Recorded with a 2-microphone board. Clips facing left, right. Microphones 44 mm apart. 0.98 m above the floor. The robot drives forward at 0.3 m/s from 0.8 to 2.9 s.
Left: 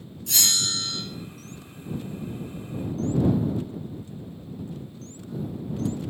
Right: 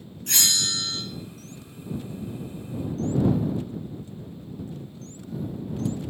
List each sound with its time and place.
0.3 s a bell: 55° right (ahead or behind), 4.5 m